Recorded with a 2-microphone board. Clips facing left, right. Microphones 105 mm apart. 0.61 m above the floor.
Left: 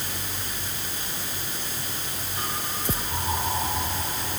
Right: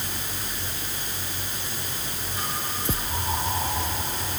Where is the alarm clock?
No alarm clock in this recording.